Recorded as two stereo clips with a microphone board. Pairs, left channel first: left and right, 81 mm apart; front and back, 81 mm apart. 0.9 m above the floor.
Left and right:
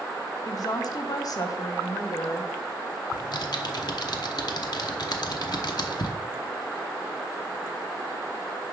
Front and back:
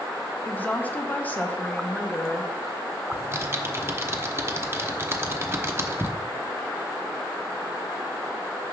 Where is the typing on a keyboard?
120° left, 0.9 m.